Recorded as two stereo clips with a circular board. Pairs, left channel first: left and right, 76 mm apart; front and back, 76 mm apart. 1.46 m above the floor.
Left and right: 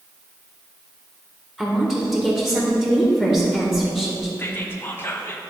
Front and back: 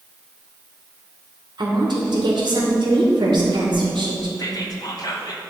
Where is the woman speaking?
175° right, 1.6 m.